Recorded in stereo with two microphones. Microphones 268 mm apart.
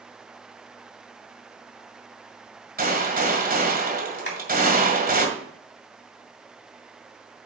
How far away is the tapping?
About 3 m.